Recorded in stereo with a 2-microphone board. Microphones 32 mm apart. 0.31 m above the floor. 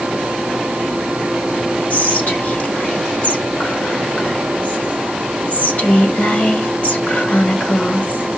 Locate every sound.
1.9 s whispering: 45° left (ahead or behind), 1.6 m